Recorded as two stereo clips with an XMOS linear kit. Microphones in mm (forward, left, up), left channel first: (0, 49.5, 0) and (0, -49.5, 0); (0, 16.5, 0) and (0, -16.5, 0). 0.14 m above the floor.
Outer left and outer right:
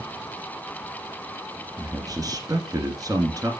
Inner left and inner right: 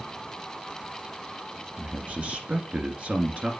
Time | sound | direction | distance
1.8 | a man speaking | 40° right (ahead or behind) | 1.7 m